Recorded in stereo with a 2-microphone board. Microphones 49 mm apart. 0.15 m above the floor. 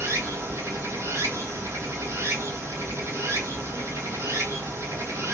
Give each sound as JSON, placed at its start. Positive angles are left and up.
{"t": 0.0, "sound": "running water", "side_deg": -65, "distance_m": 0.9}